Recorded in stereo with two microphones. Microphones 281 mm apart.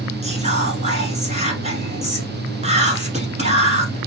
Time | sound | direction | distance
0.2 | whispering | 25° right (ahead or behind) | 1.1 m